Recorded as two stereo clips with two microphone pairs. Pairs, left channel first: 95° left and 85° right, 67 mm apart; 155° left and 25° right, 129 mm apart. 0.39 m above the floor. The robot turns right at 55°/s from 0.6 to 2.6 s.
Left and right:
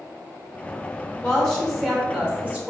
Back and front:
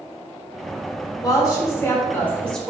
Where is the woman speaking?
160° left, 1.0 m; by 2.7 s 125° right, 1.0 m.